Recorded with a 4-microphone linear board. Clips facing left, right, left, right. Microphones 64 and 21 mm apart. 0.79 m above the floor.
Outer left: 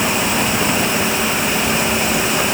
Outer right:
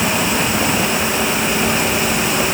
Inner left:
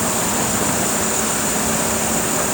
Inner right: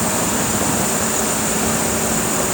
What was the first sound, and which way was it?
Only background noise.